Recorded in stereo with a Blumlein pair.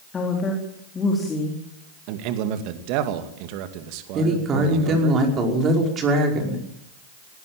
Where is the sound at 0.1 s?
20° left, 4.5 m.